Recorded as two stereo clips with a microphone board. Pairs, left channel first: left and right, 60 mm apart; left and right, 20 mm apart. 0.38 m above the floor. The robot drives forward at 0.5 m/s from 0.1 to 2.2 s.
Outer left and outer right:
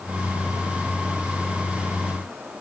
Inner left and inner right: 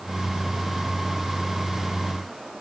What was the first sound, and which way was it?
Only background noise.